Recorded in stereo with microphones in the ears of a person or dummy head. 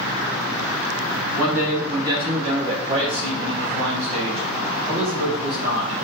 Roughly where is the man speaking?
Centre.